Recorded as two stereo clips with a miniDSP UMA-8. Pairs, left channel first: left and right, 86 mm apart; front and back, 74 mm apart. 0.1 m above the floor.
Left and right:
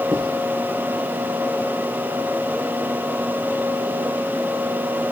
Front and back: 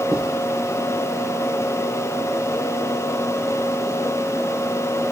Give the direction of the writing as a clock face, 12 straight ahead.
5 o'clock.